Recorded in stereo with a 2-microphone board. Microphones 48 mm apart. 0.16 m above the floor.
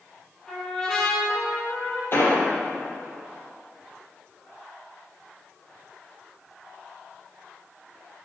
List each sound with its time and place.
0.5 s a trumpet: 10° left (ahead or behind), 4.5 m
2.1 s an explosion: 50° left (ahead or behind), 4 m